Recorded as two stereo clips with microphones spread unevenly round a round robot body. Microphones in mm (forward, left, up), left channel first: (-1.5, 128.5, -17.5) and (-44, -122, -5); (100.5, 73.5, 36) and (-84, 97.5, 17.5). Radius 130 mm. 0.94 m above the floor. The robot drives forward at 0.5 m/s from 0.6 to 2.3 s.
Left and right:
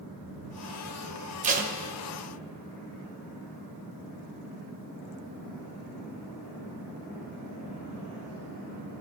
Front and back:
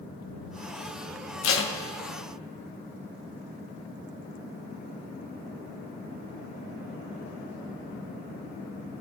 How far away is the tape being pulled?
About 1.1 m.